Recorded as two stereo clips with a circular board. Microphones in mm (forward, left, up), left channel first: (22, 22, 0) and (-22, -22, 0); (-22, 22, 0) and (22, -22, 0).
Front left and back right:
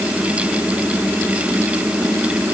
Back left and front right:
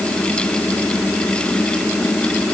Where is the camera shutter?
I don't hear a camera shutter.